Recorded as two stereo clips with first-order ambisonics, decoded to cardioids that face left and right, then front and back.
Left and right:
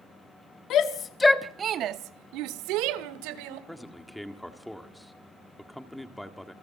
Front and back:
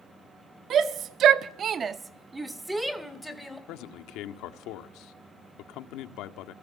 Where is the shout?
125° left, 1.3 m; by 3.6 s 85° right, 3 m.